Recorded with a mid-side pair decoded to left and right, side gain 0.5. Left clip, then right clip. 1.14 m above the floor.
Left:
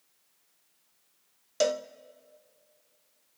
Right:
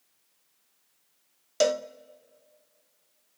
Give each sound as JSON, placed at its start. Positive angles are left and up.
{"t": 1.6, "sound": "a cowbell", "azimuth_deg": -20, "distance_m": 0.6}